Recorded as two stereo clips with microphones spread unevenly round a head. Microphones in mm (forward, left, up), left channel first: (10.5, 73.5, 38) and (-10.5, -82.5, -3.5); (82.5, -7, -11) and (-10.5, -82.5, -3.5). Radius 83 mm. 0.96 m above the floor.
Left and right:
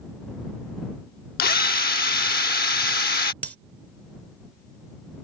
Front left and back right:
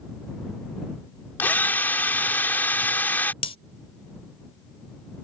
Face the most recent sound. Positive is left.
turn(degrees=20)